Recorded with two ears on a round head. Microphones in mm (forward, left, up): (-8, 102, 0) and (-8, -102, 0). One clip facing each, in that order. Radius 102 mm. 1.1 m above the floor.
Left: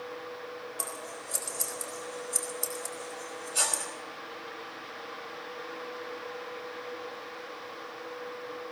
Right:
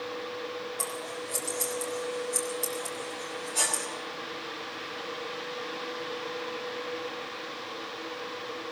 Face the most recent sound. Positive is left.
turn(degrees=10)  # may be behind; listen again after turning